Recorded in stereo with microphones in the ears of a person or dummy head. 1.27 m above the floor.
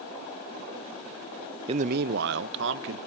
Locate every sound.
1.7 s a man speaking: 30° right (ahead or behind), 0.5 m; by 3.0 s 70° right (ahead or behind), 1.8 m